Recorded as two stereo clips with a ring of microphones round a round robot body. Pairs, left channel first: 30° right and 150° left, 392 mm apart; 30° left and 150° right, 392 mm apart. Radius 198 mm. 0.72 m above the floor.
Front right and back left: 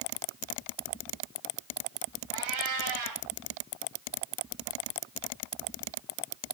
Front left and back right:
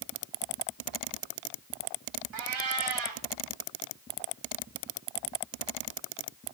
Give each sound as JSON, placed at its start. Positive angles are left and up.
{"t": 2.3, "sound": "a cat meowing", "azimuth_deg": -175, "distance_m": 2.0}